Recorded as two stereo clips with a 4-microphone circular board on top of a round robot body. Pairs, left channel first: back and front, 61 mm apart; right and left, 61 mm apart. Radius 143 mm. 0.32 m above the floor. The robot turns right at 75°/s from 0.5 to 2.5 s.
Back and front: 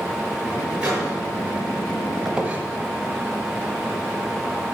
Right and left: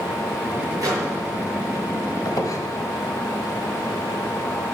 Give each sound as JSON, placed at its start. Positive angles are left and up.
{"t": 0.8, "sound": "a microwave", "azimuth_deg": 70, "distance_m": 6.0}
{"t": 2.2, "sound": "a squeak", "azimuth_deg": -85, "distance_m": 1.6}